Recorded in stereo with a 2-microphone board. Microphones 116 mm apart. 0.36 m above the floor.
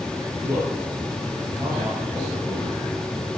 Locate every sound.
0.4 s a man speaking: 25° right (ahead or behind), 9 m; by 2.8 s 40° right (ahead or behind), 9.5 m